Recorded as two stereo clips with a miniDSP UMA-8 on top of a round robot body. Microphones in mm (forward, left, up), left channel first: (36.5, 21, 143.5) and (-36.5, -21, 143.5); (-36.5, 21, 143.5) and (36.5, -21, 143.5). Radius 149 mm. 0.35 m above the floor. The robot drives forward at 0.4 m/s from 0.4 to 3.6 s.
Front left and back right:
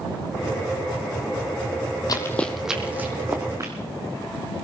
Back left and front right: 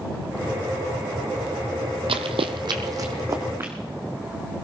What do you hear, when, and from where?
2.1 s running footsteps: 15° right, 0.8 m; by 3.7 s 90° right, 2 m